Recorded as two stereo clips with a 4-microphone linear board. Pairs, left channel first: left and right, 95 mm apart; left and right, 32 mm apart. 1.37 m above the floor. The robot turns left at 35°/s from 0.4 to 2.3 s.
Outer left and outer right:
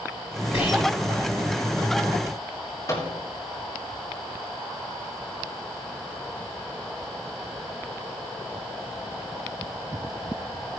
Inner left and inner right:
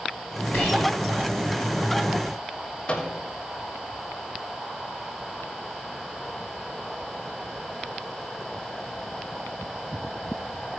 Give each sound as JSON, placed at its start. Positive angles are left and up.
{"t": 0.5, "sound": "whispering", "side_deg": 80, "distance_m": 6.5}
{"t": 2.9, "sound": "a microwave", "side_deg": 35, "distance_m": 3.0}